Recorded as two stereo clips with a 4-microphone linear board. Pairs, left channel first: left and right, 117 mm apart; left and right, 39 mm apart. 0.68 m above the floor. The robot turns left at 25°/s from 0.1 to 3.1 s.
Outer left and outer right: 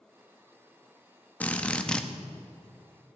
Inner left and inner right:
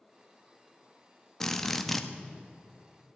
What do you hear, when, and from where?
1.4 s a drill: 15° left (ahead or behind), 0.8 m; by 2.1 s 5° left (ahead or behind), 0.8 m